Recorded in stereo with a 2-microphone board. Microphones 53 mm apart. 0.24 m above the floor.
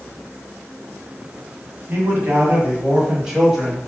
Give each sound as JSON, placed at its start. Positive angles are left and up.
{"t": 1.9, "sound": "a man speaking", "side_deg": -40, "distance_m": 1.6}